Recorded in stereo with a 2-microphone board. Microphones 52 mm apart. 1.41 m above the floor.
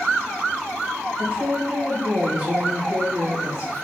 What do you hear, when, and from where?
1.2 s a woman speaking: 40° right (ahead or behind), 1.7 m